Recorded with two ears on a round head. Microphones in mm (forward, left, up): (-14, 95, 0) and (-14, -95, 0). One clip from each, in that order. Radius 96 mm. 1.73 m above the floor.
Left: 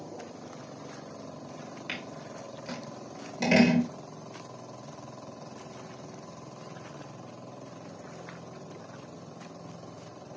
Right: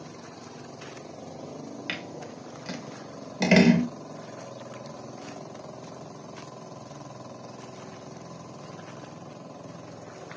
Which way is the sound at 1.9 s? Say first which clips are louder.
Right 3 dB; 20° right (ahead or behind).